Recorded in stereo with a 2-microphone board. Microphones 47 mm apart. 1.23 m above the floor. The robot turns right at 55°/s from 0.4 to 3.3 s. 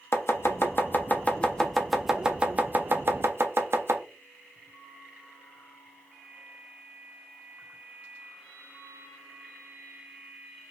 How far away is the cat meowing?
No cat meowing in this recording.